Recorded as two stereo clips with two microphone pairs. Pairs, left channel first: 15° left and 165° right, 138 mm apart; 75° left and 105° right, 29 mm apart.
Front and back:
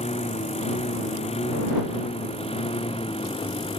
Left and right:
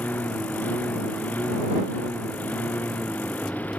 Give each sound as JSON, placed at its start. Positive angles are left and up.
{"t": 0.0, "sound": "a lawn mower", "azimuth_deg": 55}